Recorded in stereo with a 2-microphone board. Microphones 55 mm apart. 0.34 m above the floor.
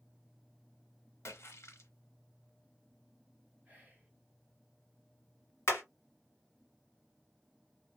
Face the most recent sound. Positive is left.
turn(degrees=55)  # may be behind; listen again after turning